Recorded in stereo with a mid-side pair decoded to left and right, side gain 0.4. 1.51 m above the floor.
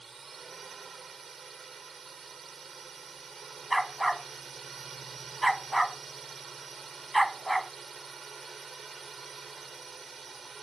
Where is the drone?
40° right.